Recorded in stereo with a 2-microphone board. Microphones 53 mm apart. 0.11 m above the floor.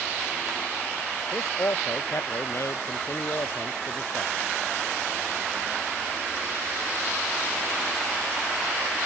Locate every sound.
1.3 s a man speaking: 65° left (ahead or behind); by 4.3 s 70° left (ahead or behind)